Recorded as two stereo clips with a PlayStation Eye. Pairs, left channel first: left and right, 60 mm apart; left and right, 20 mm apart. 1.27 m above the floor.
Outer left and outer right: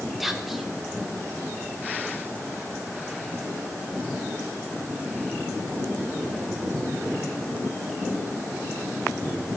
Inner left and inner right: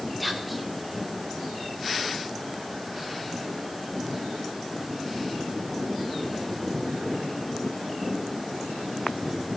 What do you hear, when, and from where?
0.2 s whispering: centre (ahead or behind), 1.4 m